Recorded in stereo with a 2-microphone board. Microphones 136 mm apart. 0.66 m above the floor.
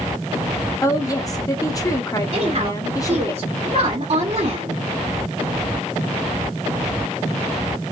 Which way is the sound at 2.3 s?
45° right (ahead or behind).